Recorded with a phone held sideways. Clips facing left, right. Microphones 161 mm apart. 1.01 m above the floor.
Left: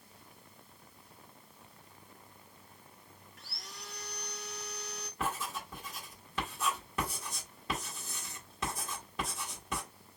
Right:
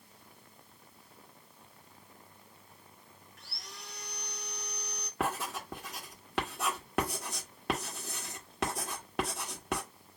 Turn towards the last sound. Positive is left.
turn(degrees=-70)  # may be behind; listen again after turning